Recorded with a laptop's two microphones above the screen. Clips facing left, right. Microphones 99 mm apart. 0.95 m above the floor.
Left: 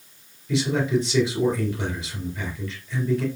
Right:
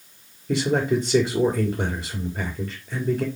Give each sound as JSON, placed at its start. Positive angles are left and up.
{"t": 0.5, "sound": "a man speaking", "side_deg": -45, "distance_m": 3.0}